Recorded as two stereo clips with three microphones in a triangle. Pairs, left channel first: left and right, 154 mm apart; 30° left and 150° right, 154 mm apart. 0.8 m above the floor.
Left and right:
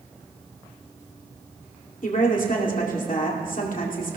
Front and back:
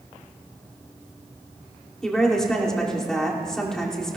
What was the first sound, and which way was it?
A woman speaking, 115° left.